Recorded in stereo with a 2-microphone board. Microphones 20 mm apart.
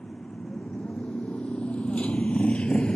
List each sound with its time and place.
0.0 s a motorcycle: 65° left (ahead or behind); by 3.0 s 50° left (ahead or behind)